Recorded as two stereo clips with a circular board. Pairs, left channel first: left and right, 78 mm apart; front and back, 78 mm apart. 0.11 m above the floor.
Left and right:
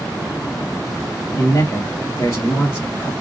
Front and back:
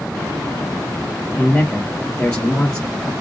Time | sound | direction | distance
1.3 | a man speaking | 70° left | 1.6 m